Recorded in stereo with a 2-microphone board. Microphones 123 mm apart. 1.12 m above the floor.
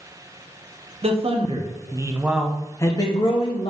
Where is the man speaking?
55° right (ahead or behind), 1.0 m; by 3.7 s 55° left (ahead or behind), 0.9 m.